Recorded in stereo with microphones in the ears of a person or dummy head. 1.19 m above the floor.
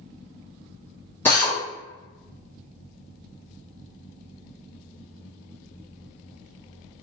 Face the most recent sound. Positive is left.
turn(degrees=10)  # may be behind; listen again after turning